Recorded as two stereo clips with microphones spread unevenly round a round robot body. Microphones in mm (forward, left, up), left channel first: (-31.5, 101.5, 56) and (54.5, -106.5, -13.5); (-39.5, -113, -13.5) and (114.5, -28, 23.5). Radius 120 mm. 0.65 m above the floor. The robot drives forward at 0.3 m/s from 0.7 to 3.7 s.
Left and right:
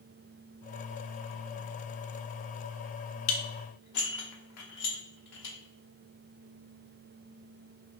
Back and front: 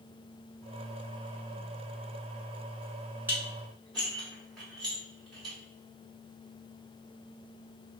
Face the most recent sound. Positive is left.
turn(degrees=130)